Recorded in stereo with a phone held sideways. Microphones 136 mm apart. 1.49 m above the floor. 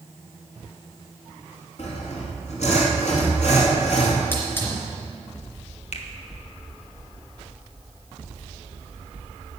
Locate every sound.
1.8 s sawing: 55° left (ahead or behind), 2.5 m
4.3 s a hiss: 20° left (ahead or behind), 3 m
5.9 s a finger snap: 55° left (ahead or behind), 1.2 m